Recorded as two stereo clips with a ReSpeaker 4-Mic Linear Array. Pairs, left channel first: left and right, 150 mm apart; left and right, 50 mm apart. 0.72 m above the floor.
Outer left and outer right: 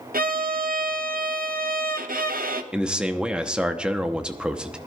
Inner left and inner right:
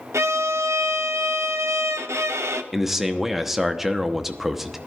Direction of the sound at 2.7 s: 5° right (ahead or behind).